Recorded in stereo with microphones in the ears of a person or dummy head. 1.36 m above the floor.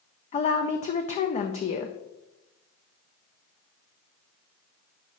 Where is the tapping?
No tapping in this recording.